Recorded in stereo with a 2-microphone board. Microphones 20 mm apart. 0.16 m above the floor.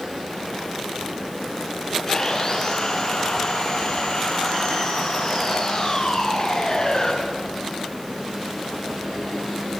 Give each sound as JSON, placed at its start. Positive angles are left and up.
{"t": 2.1, "sound": "sawing", "side_deg": 35, "distance_m": 7.5}